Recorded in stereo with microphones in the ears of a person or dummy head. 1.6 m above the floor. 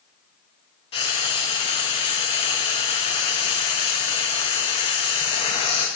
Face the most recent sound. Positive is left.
turn(degrees=30)  # may be behind; listen again after turning